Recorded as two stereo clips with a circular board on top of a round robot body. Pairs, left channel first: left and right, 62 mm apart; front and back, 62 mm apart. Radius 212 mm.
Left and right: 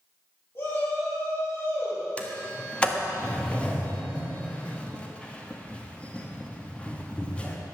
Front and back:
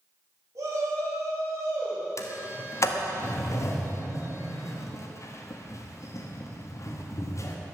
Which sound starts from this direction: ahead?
A sliding door, at 2.2 s.